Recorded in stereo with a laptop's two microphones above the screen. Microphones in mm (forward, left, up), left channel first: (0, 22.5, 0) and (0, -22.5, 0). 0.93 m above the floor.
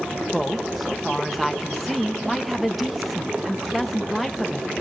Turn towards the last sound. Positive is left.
turn(degrees=-5)  # may be behind; listen again after turning